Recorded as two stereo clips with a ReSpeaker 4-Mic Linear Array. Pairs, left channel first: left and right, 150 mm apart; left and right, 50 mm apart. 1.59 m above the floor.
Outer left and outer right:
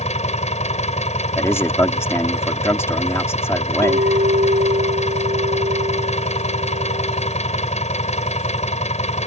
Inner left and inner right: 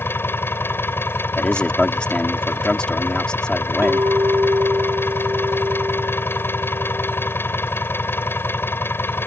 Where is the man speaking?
15° left (ahead or behind).